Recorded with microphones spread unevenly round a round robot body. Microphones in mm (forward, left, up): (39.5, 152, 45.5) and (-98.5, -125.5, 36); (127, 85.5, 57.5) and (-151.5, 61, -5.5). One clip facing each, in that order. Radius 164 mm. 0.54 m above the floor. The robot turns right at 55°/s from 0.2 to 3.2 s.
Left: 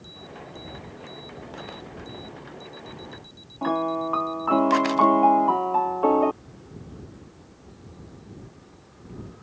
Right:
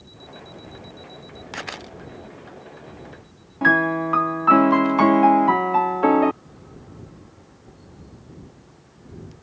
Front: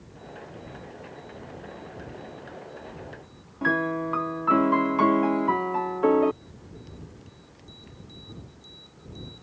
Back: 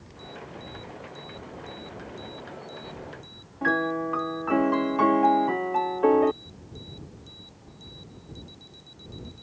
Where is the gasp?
No gasp in this recording.